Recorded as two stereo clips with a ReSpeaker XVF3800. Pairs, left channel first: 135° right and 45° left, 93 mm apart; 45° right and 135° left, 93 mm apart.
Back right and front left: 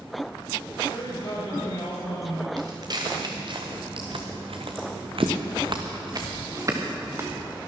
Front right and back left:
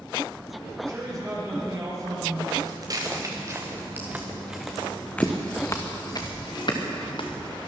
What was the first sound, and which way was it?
A man speaking, 175° right.